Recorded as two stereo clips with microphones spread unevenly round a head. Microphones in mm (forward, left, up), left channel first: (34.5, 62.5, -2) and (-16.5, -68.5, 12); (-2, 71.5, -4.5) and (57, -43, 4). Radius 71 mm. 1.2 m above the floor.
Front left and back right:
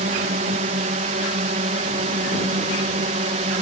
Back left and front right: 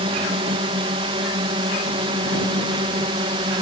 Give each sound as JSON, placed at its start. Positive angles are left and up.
{"t": 0.0, "sound": "a drone", "azimuth_deg": -100}